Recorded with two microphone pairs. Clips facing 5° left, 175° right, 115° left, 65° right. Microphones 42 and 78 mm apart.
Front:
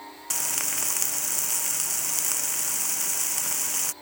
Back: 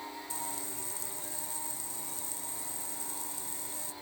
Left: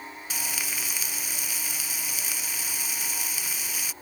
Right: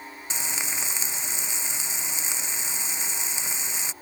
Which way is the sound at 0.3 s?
Straight ahead.